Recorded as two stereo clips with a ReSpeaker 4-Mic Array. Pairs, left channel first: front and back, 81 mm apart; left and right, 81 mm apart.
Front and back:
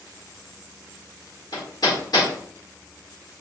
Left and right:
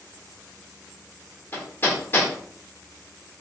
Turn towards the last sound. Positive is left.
turn(degrees=30)